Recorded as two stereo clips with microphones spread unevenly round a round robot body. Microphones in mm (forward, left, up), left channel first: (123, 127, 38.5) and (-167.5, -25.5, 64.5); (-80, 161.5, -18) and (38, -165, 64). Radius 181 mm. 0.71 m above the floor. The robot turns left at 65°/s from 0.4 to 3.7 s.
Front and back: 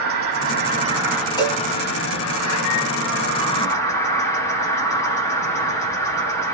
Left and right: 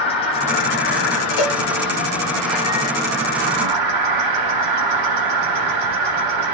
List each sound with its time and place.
0.0 s an insect: 165° left, 1.3 m; by 6.5 s 45° right, 1.3 m
1.4 s a cowbell: 105° left, 1.1 m; by 1.6 s 95° left, 1.1 m